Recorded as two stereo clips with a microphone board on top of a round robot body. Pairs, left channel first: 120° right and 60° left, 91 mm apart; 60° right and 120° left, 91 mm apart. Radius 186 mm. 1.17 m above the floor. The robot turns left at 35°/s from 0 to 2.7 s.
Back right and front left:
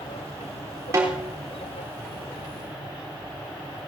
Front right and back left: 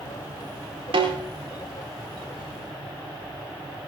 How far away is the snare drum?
About 4 m.